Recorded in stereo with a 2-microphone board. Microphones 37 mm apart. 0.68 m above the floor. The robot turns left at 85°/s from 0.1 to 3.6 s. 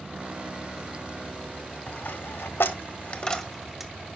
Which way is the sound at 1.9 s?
30° left (ahead or behind).